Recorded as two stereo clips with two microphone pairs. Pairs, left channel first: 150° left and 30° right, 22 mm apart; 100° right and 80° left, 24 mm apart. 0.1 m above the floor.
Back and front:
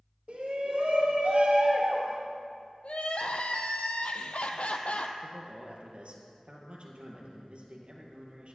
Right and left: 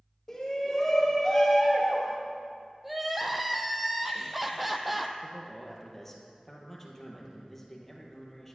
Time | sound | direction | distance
0.3 | a shout | 25° right | 3.5 m
2.8 | crying | 165° left | 0.8 m
5.2 | a man speaking | 20° right | 2 m